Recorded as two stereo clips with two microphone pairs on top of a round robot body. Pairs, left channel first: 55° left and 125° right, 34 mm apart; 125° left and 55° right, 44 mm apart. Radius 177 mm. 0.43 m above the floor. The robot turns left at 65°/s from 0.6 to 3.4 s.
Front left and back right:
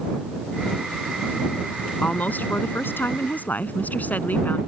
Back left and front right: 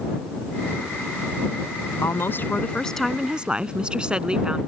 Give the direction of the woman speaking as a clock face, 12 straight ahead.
8 o'clock.